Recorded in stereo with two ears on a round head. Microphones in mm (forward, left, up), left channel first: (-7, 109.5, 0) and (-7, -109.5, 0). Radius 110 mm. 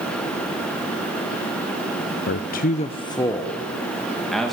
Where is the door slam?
No door slam in this recording.